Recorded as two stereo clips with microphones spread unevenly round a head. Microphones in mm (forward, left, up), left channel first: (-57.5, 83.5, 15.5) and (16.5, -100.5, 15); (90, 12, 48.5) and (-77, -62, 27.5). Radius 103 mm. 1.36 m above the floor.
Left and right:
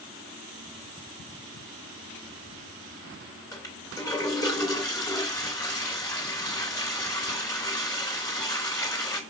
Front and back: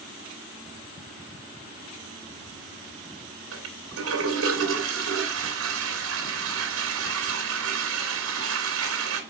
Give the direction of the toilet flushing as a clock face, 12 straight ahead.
6 o'clock.